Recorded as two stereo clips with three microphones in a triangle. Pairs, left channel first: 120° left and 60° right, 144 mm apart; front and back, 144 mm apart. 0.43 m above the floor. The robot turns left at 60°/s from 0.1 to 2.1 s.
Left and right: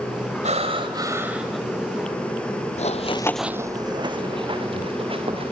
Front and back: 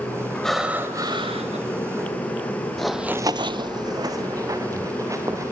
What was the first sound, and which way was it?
Breathing, 85° right.